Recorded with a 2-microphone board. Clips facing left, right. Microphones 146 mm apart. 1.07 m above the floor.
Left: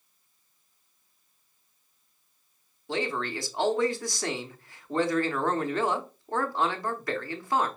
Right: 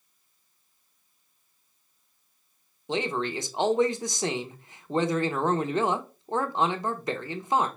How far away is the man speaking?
About 0.8 m.